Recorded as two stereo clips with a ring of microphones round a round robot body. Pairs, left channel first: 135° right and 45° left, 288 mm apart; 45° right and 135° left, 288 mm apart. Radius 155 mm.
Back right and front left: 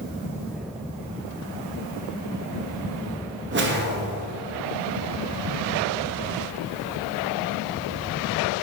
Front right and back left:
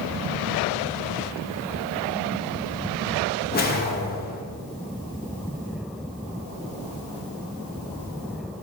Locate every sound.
3.5 s a whoosh: 5° left, 0.7 m